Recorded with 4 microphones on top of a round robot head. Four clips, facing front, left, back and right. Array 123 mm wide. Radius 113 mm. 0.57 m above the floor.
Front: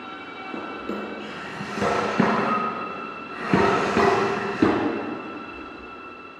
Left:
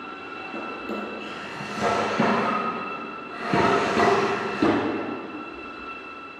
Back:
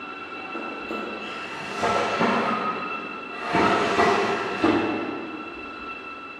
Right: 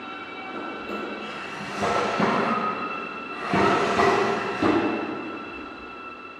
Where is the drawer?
10° left, 2.5 m.